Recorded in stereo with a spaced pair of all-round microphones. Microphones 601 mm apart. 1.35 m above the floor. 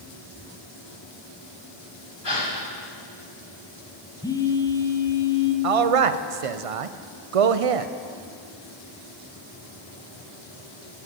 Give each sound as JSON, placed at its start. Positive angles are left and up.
{"t": 2.2, "sound": "a gasp", "side_deg": 40, "distance_m": 1.9}
{"t": 4.2, "sound": "a phone buzzing", "side_deg": 5, "distance_m": 0.6}
{"t": 5.6, "sound": "a man speaking", "side_deg": -60, "distance_m": 0.5}